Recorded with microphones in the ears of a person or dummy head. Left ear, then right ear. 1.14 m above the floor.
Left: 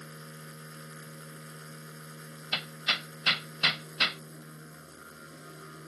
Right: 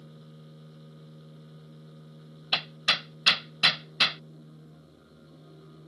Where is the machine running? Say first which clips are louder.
Left 6 dB; 60° left (ahead or behind).